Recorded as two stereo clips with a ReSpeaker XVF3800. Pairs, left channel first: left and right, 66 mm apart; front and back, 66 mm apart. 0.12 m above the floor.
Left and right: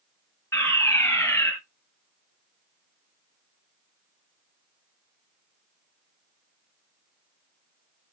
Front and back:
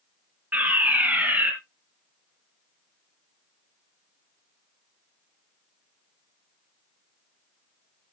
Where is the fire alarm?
120° left, 3.5 m.